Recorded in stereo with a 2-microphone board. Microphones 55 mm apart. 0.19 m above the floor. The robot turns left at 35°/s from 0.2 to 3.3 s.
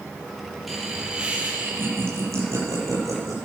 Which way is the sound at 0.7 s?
Straight ahead.